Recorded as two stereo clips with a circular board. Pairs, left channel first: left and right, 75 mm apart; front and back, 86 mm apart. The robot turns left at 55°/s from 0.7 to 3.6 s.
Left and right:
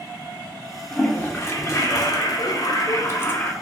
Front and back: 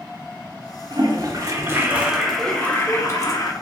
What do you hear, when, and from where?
0.9 s a toilet flushing: 165° left, 0.6 m; by 3.5 s 25° left, 0.6 m